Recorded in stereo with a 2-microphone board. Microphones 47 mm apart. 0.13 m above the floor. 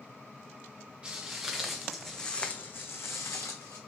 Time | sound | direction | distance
1.0 | footsteps | 20° right (ahead or behind) | 1.1 m